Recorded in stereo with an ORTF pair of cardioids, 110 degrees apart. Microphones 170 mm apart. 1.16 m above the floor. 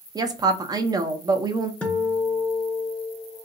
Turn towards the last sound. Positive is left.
turn(degrees=5)